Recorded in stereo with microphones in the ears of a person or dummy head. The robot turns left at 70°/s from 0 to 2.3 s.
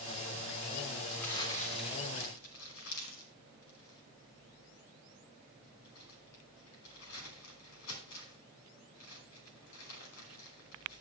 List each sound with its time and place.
1.1 s crumpling: 5° right (ahead or behind), 3 m; by 11.0 s 80° left, 3 m